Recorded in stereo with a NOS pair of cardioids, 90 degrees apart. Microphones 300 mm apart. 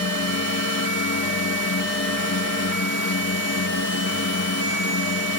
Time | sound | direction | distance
0.0 | a drone | 60° left | ?